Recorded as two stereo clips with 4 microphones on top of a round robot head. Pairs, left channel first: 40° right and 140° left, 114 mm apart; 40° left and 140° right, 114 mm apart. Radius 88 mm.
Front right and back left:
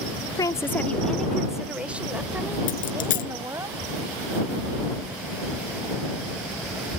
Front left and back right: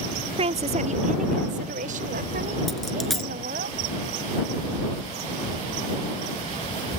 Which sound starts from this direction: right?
A woman speaking, at 0.4 s.